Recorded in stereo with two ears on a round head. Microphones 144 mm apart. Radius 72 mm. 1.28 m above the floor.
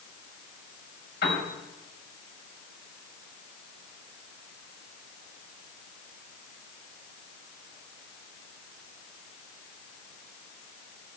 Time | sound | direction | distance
1.2 | a piano | 65° left (ahead or behind) | 5.5 m